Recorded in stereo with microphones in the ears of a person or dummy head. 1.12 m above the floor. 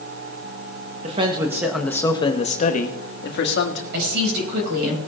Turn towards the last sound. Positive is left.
turn(degrees=-60)  # may be behind; listen again after turning